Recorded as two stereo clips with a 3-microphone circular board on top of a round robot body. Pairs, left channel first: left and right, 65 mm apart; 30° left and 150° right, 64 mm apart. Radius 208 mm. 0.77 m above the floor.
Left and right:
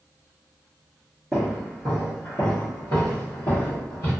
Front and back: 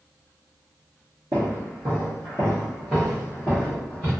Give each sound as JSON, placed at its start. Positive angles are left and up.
{"t": 1.3, "sound": "footsteps", "azimuth_deg": -145, "distance_m": 0.7}